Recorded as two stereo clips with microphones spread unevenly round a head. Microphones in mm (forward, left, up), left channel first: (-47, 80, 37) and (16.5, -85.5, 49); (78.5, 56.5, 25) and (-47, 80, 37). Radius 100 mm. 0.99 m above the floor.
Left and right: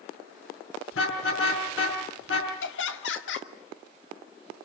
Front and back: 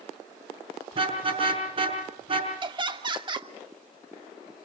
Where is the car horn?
125° left, 5.5 m.